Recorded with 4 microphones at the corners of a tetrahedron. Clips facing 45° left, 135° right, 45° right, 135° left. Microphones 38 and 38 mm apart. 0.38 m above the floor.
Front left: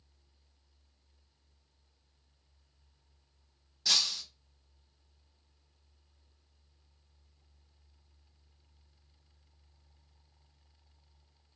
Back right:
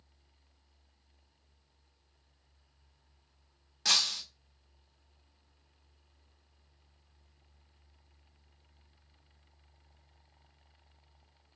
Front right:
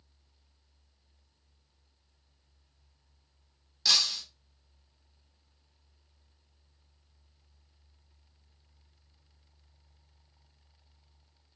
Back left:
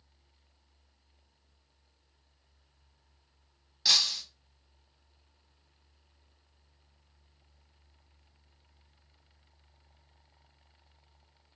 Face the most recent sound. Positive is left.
turn(degrees=-145)